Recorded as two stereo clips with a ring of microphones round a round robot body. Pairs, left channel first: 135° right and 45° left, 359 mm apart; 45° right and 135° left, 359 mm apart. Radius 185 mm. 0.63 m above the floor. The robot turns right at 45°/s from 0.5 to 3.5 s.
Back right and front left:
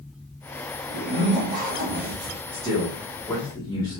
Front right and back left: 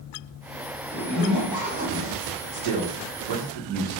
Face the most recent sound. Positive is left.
turn(degrees=145)